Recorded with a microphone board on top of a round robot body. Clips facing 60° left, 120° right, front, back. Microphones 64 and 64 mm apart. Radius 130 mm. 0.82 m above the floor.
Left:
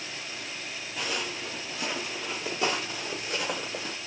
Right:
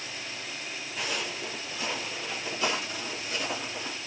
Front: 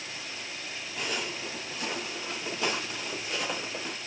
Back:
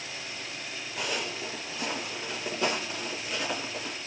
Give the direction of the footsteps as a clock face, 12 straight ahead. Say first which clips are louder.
Left 1 dB, back 1 dB; 7 o'clock.